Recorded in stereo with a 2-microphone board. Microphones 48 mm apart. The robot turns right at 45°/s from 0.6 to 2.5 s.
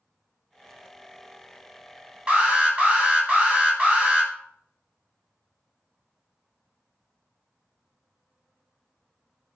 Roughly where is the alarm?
Right.